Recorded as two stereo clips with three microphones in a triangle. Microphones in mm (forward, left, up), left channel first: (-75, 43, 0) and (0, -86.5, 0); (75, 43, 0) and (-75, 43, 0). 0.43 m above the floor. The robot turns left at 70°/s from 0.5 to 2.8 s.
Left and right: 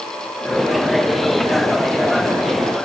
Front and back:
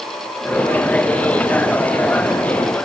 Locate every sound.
Only background noise.